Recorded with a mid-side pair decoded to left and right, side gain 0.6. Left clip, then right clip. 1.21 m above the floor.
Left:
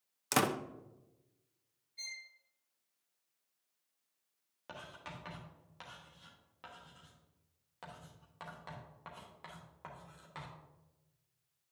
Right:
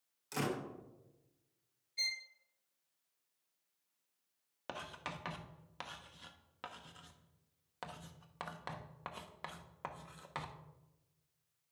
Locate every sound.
0.3 s a door slam: 65° left, 0.8 m
2.0 s a violin: 50° right, 0.8 m
4.7 s writing: 40° right, 1.0 m